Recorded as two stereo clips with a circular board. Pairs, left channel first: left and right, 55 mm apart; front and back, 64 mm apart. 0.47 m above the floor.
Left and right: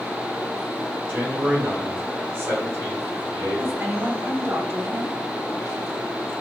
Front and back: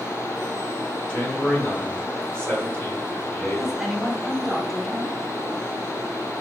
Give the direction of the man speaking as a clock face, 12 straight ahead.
2 o'clock.